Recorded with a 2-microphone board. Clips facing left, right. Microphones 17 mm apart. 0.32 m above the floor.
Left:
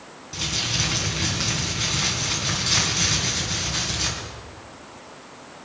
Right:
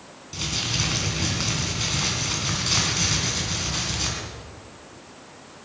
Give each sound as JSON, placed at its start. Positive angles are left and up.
{"t": 0.3, "sound": "crumpling", "side_deg": -5, "distance_m": 3.0}